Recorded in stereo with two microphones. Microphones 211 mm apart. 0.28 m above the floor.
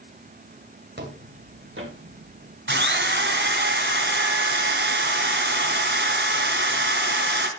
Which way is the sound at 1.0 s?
55° right (ahead or behind).